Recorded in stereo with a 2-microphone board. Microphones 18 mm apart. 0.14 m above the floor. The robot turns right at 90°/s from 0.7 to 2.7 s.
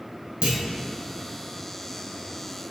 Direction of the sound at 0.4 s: 65° right (ahead or behind).